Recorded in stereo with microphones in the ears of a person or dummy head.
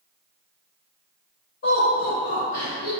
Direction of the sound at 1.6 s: 55° left (ahead or behind).